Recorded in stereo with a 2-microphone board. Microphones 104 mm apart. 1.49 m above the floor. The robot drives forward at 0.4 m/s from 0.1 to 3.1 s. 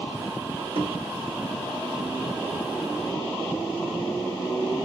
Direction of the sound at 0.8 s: 65° right (ahead or behind).